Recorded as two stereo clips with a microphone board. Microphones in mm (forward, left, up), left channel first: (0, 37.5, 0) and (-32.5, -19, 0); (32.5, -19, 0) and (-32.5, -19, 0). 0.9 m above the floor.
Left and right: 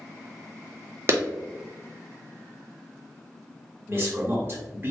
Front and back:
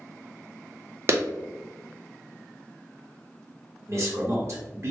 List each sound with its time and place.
1.1 s a clap: 150° right, 0.5 m
3.9 s a man speaking: 160° right, 1.3 m